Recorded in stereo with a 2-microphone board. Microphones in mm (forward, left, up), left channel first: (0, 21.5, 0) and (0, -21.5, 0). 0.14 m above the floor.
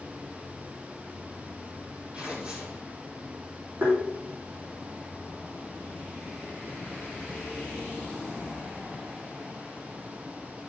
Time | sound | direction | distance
2.1 | tearing paper | 25° right (ahead or behind) | 5.5 m
3.8 | tapping | 50° right (ahead or behind) | 8.5 m